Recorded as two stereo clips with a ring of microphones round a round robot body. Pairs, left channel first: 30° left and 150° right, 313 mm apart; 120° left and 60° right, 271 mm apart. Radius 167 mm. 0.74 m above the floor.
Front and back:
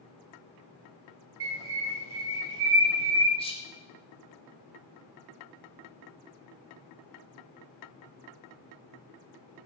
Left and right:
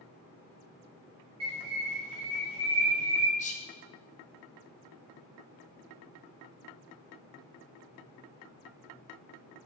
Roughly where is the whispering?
Left.